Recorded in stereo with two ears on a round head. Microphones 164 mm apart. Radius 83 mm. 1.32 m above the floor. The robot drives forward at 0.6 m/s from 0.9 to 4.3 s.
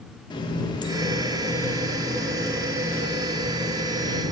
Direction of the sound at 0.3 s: 25° left (ahead or behind).